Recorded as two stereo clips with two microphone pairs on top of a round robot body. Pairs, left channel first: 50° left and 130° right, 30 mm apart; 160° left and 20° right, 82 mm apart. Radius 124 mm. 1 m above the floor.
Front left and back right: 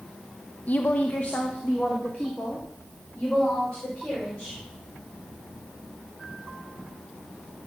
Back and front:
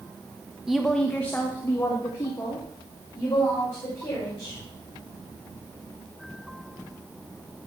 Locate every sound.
0.7 s a woman speaking: 65° left, 0.7 m; by 4.6 s 105° left, 4.5 m